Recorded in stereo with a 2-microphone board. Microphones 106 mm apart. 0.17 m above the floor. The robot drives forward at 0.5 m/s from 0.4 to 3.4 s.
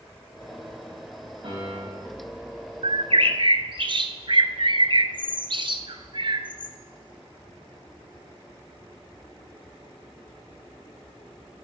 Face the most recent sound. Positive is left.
turn(degrees=-55)  # may be behind; listen again after turning